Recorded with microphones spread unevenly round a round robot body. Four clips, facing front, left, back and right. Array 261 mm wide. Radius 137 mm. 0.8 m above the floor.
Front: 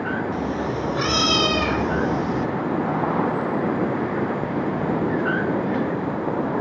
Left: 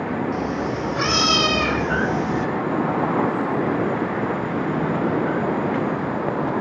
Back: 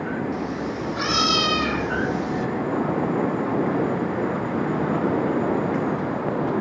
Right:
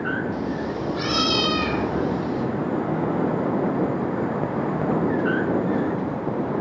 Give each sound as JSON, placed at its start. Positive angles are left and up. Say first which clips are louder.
{"t": 0.3, "sound": "a cat meowing", "louder": "left 2 dB, front 2 dB", "azimuth_deg": 40, "distance_m": 6.5}